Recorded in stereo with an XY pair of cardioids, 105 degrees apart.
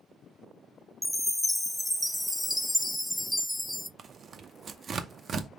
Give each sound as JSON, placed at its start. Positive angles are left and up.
{"t": 1.0, "sound": "a chime", "azimuth_deg": 5, "distance_m": 0.5}
{"t": 4.0, "sound": "tearing paper", "azimuth_deg": -50, "distance_m": 0.6}